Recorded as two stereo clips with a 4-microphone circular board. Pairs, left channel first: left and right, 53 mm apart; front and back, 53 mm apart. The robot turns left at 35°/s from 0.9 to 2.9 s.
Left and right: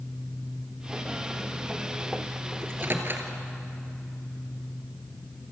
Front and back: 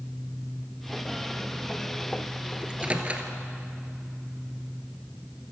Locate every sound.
2.6 s a microwave: 110° right, 1.8 m; by 3.3 s 120° right, 1.8 m